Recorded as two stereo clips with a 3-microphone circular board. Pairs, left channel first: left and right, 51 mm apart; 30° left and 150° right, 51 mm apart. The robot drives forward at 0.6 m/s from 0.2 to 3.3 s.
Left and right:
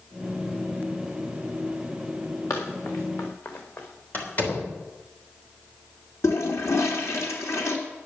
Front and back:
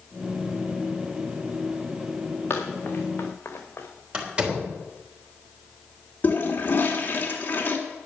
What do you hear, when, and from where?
2.5 s running footsteps: 70° left, 4 m; by 3.9 s 65° left, 4 m
4.1 s a door slam: 140° left, 3.5 m
6.2 s a toilet flushing: 80° left, 2.5 m